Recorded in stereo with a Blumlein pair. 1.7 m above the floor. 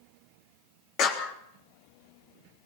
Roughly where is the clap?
Ahead left.